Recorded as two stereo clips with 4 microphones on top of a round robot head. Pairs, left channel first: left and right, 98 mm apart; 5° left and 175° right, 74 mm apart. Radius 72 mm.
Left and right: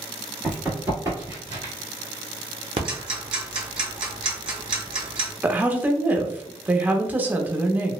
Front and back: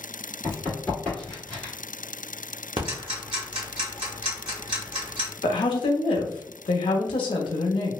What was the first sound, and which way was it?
Running footsteps, 30° right.